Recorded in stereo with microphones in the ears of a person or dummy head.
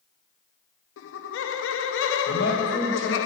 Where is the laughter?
80° left, 0.6 m.